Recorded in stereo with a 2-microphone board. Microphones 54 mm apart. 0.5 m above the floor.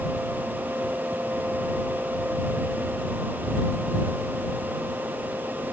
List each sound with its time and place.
Only background noise.